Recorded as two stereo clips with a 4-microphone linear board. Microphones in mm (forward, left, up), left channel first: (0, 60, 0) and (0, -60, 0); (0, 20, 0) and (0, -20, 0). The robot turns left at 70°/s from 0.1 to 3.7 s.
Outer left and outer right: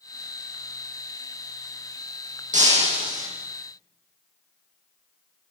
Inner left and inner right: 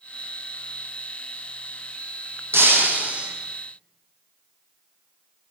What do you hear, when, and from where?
2.5 s breaking glass: 100° right, 8.5 m; by 3.3 s 155° right, 8.5 m